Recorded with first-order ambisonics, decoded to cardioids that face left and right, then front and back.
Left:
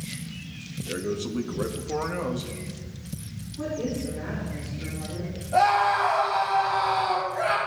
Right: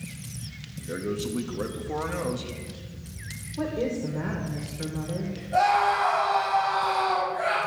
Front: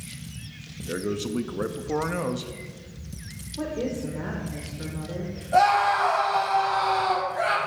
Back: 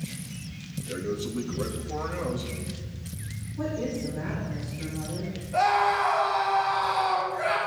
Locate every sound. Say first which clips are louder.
0.8 s a man speaking: left 1 dB, front 2 dB; 5° left, 0.7 m
3.6 s a woman speaking: right 2 dB, front 1 dB; 55° right, 2 m
5.5 s a scream: left 1 dB, front 3 dB; 5° left, 4.5 m